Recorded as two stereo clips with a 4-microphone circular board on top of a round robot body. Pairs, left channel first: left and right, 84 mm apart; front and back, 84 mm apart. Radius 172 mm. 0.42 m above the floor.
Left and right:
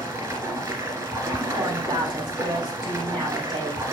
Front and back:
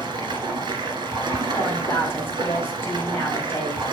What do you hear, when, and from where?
0.0 s running water: 145° right, 1.6 m
1.5 s a woman speaking: 60° right, 5 m